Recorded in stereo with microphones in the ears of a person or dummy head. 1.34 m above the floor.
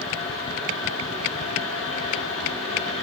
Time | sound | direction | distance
0.0 | a fan | 45° left (ahead or behind) | 5 m